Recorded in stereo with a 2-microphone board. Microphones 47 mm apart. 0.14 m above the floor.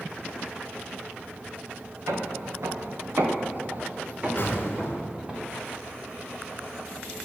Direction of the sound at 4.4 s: 45° left (ahead or behind).